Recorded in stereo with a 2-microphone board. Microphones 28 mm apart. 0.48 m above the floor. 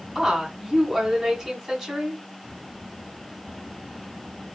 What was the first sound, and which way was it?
A woman speaking, 20° right (ahead or behind).